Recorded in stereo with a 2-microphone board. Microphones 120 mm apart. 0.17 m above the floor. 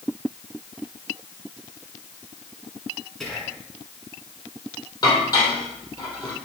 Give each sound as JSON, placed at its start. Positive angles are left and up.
{"t": 3.2, "sound": "whispering", "side_deg": 5, "distance_m": 1.8}
{"t": 5.0, "sound": "dishes clattering", "side_deg": 35, "distance_m": 4.0}